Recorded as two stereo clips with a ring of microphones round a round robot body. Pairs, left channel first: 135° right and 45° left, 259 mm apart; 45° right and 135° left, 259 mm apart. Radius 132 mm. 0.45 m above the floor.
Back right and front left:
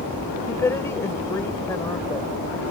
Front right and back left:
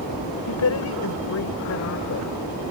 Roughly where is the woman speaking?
Ahead right.